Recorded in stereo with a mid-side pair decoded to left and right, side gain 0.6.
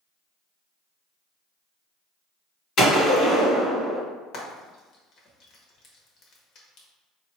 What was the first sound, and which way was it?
A gunshot, 55° left.